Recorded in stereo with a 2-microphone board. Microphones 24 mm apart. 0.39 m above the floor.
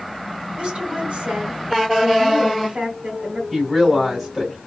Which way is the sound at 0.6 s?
65° right (ahead or behind).